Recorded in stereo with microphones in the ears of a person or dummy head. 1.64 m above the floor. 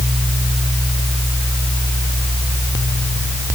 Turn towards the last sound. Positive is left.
No sound to turn to.